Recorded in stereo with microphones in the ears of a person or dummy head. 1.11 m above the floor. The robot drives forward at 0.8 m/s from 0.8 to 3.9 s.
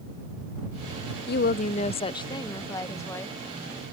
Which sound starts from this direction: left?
A woman speaking, at 1.3 s.